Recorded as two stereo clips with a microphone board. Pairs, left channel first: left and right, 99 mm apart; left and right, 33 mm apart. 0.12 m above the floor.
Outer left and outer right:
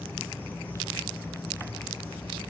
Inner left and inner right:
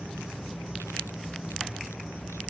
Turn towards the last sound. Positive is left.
turn(degrees=20)  # may be behind; listen again after turning